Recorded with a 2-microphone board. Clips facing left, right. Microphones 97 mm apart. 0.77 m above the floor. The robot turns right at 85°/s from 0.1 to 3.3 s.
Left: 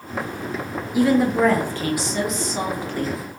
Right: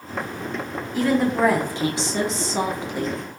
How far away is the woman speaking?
About 0.7 m.